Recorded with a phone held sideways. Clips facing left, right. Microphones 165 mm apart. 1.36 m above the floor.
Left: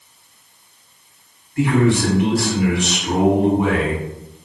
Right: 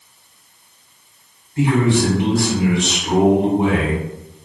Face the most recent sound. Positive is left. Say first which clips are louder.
# even
turn(degrees=-25)  # may be behind; listen again after turning